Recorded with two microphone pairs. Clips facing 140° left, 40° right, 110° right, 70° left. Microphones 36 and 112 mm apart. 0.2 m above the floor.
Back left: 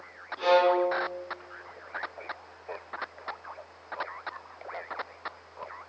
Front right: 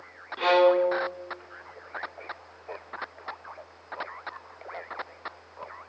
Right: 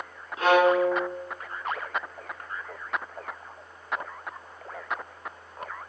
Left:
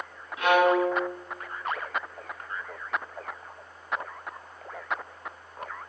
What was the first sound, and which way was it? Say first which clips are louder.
A violin: front right 2 dB, right 1 dB; 60° right.